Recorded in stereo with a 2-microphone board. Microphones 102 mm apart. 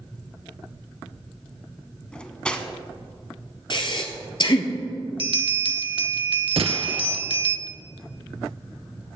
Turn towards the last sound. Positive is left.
turn(degrees=-75)  # may be behind; listen again after turning